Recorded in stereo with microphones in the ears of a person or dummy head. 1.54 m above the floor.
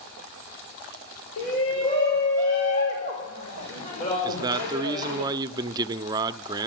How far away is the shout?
About 5.5 m.